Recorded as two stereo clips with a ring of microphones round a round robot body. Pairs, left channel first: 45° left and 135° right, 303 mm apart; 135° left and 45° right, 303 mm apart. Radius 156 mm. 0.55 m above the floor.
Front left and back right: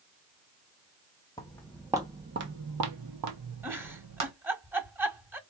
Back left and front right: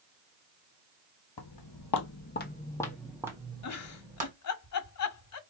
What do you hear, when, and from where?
1.4 s footsteps: 120° left, 1.1 m; by 4.3 s 110° right, 1.7 m
3.6 s a giggle: 145° left, 1.4 m